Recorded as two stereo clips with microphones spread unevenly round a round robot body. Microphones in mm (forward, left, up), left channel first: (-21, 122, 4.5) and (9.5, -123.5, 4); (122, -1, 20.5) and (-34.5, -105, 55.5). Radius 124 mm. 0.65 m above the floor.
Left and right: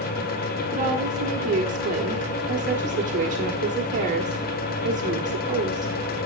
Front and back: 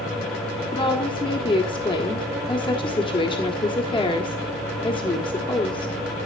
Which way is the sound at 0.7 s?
25° right.